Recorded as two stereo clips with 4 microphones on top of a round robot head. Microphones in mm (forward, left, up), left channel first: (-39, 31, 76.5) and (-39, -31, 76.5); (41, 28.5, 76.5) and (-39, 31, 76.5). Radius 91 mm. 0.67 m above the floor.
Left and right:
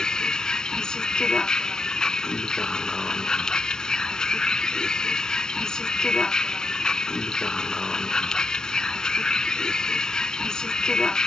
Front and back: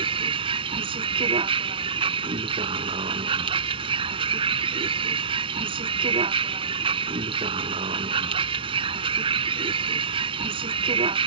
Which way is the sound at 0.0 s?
170° left.